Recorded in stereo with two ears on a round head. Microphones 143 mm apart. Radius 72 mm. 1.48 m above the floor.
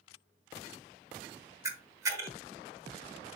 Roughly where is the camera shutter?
Centre.